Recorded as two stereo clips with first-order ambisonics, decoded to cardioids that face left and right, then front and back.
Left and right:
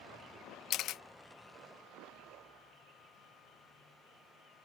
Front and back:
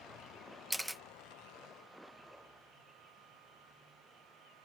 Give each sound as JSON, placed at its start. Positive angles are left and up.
{"t": 0.7, "sound": "a camera shutter", "azimuth_deg": 90}